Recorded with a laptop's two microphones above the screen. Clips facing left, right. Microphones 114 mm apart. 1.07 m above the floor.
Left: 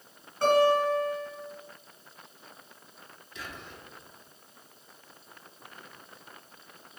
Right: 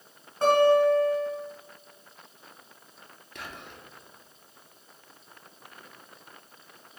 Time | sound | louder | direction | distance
0.4 | a guitar | right 3 dB | 30° right (ahead or behind) | 1.9 m
3.4 | whispering | right 1 dB | 60° right (ahead or behind) | 0.6 m